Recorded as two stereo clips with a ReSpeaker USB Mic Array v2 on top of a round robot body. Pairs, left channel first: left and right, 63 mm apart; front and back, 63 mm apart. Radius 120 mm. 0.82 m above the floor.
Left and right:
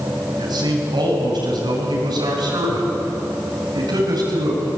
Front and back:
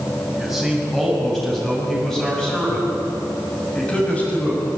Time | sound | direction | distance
0.4 | a man speaking | 90° right | 7 m